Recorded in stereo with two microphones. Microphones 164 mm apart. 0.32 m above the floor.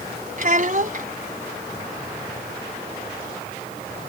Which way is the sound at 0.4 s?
55° right (ahead or behind).